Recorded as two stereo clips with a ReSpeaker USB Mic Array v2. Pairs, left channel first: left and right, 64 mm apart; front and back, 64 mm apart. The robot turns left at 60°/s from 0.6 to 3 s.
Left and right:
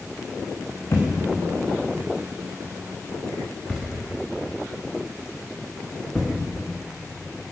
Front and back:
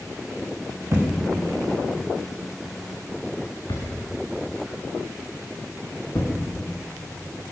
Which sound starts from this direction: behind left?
A thud, at 0.9 s.